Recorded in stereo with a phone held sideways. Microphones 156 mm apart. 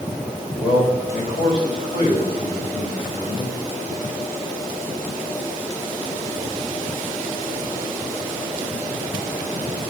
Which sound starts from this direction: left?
A man speaking, at 0.6 s.